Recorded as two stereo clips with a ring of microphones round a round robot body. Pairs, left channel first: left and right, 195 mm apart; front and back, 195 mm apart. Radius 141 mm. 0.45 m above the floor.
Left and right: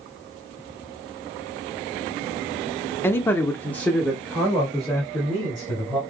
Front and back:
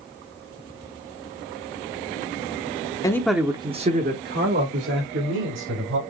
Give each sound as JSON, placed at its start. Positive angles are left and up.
{"t": 3.0, "sound": "a man speaking", "azimuth_deg": 35, "distance_m": 0.8}